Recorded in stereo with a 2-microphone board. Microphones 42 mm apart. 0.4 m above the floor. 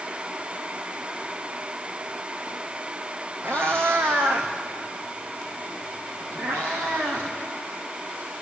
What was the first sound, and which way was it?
A cat meowing, 70° right (ahead or behind).